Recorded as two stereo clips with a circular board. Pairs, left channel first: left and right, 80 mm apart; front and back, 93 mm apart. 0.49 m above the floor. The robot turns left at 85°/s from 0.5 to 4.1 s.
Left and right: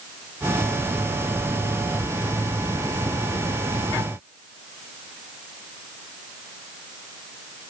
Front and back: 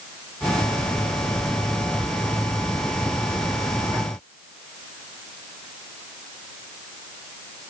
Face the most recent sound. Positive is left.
No sound to turn to.